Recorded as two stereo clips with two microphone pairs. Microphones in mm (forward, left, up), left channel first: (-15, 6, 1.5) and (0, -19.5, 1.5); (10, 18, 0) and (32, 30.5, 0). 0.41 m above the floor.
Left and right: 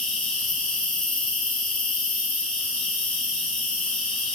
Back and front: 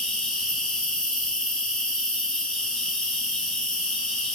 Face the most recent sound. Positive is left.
turn(degrees=165)